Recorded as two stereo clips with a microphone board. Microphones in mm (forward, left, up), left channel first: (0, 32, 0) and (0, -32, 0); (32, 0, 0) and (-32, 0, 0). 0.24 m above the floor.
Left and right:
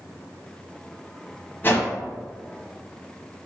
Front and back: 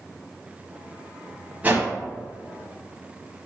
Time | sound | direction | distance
1.6 | a whoosh | 130° left | 0.9 m